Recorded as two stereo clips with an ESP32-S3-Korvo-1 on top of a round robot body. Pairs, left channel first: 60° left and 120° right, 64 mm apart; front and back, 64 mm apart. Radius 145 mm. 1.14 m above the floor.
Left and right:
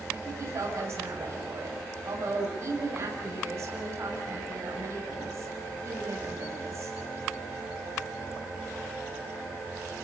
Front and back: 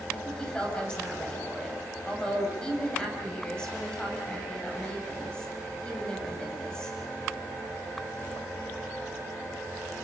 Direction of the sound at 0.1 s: 75° right.